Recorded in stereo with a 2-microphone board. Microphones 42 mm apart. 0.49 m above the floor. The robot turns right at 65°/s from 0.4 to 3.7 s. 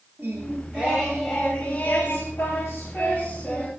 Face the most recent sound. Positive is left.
turn(degrees=160)